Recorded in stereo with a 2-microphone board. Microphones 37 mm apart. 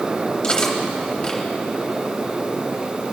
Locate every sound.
0.4 s cutlery clinking: 25° left (ahead or behind), 2 m